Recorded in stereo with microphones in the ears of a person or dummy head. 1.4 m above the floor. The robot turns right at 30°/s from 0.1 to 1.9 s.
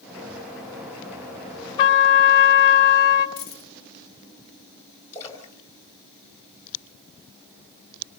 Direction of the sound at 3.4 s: 20° right (ahead or behind).